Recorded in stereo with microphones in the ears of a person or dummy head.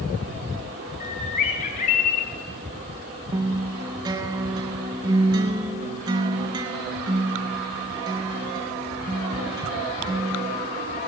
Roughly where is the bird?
Left.